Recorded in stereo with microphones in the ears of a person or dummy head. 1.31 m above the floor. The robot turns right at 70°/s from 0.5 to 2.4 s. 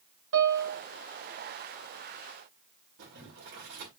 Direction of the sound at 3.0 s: 50° right (ahead or behind).